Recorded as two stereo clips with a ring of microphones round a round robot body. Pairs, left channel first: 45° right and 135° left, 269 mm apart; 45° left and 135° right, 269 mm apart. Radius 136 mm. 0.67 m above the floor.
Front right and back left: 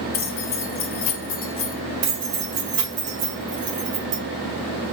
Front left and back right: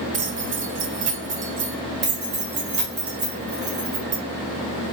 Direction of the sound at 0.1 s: 90° right.